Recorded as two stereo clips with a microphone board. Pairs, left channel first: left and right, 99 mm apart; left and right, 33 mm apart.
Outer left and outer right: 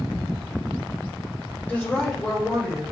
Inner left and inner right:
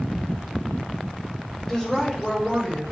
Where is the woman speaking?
20° left (ahead or behind), 1.4 m; by 2.8 s centre (ahead or behind), 2.5 m.